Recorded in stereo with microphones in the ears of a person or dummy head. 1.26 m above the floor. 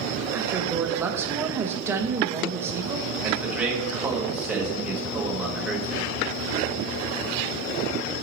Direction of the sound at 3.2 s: 5° right (ahead or behind).